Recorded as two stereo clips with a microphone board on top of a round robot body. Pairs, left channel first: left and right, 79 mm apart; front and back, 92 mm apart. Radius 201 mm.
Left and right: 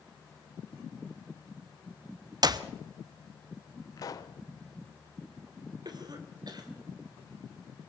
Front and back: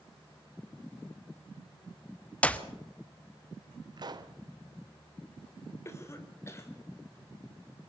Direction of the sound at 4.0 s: 140° left.